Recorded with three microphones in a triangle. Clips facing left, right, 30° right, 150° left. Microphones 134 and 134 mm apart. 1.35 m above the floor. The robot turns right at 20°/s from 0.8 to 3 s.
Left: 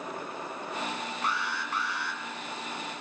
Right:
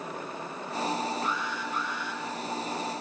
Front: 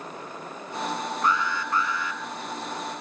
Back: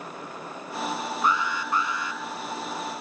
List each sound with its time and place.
1.2 s an alarm: 65° left, 2.5 m; by 2.2 s 85° left, 2.5 m